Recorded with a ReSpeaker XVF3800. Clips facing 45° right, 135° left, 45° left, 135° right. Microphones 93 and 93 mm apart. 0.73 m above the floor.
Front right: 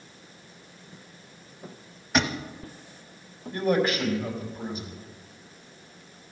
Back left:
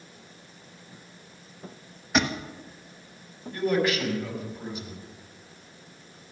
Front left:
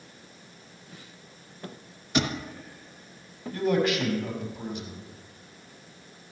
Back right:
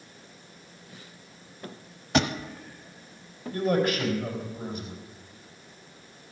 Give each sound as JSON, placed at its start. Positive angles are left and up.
{"t": 2.1, "sound": "a thud", "azimuth_deg": -135, "distance_m": 1.1}
{"t": 3.5, "sound": "a man speaking", "azimuth_deg": -100, "distance_m": 4.5}